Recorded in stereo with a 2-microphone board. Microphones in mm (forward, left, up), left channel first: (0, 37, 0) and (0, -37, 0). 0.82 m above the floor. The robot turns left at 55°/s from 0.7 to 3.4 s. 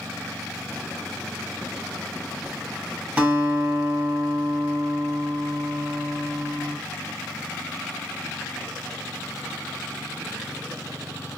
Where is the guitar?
15° right (ahead or behind), 1.5 m; by 6.8 s 25° right (ahead or behind), 1.5 m.